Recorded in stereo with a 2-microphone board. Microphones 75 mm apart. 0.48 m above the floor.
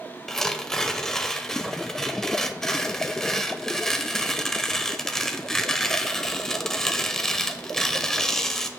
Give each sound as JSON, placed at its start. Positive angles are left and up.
{"t": 0.3, "sound": "tearing paper", "side_deg": 5, "distance_m": 0.8}